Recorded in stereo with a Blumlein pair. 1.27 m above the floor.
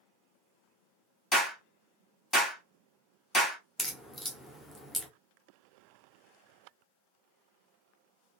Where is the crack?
5° left, 0.7 m.